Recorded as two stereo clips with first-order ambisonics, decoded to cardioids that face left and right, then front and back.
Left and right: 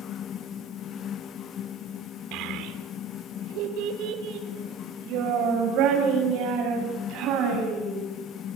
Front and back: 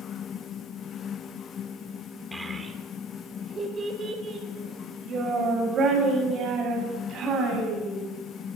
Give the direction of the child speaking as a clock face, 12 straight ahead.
3 o'clock.